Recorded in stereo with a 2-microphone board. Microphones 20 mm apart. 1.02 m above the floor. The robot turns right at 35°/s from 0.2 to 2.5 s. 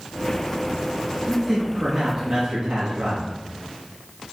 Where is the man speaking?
175° right, 1.8 m; by 3.3 s 130° right, 1.8 m.